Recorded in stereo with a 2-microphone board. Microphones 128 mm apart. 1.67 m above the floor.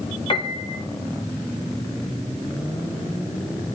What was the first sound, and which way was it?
A piano, 45° left (ahead or behind).